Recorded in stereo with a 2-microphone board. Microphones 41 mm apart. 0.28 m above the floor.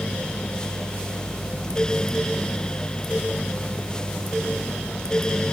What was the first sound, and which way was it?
Only background noise.